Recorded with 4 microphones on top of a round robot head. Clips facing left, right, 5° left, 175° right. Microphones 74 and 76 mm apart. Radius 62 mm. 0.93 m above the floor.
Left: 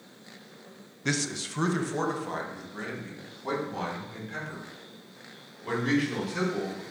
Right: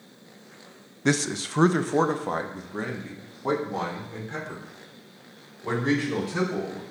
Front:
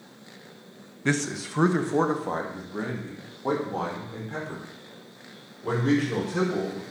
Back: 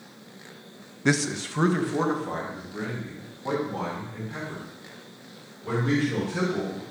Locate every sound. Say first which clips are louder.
1.1 s a man speaking: right 6 dB, back 2 dB; 115° right, 0.6 m; by 6.8 s 35° right, 5 m